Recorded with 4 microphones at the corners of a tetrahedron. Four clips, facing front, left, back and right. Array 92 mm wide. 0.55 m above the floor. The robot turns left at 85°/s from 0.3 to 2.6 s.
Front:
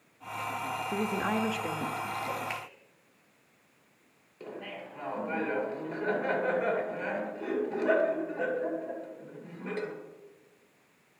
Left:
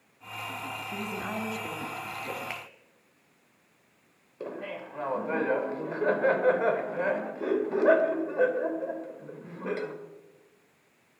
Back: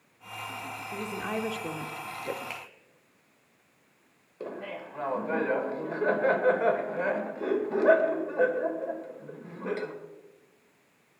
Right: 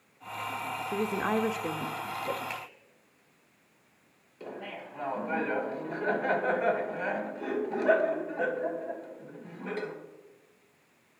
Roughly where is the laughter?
Behind left.